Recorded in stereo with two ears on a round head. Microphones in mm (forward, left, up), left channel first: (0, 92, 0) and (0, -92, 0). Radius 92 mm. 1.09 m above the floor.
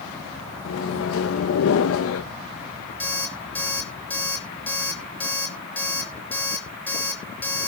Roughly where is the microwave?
Left.